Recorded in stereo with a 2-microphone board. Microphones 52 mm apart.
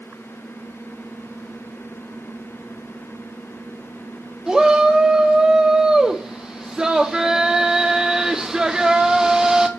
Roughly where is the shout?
Centre.